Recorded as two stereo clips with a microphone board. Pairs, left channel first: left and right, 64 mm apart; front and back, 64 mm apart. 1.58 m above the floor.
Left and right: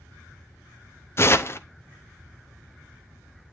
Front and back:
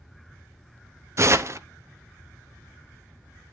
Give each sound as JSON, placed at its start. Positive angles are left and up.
{"t": 1.2, "sound": "tearing paper", "azimuth_deg": 135, "distance_m": 0.7}